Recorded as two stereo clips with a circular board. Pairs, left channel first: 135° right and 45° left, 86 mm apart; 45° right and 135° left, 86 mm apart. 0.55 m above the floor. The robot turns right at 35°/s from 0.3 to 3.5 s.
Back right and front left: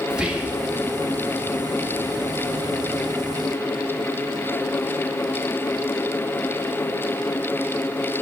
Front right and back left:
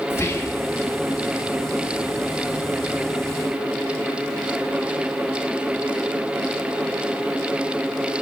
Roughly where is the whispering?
Ahead right.